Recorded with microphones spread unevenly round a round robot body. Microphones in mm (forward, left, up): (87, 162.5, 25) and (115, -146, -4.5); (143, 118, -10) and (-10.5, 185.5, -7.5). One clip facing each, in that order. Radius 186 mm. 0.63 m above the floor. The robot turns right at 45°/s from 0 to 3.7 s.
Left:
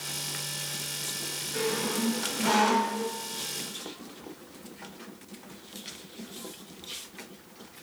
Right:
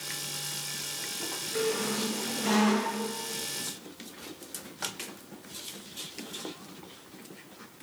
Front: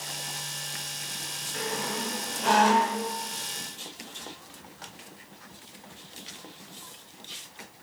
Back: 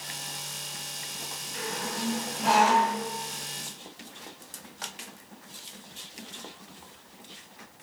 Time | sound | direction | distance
1.5 | a squeak | 25° left | 1.2 m